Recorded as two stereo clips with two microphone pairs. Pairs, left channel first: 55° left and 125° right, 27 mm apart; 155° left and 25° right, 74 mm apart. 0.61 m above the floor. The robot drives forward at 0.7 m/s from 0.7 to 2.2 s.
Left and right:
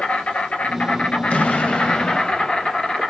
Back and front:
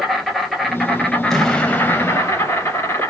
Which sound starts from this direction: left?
An explosion, at 1.3 s.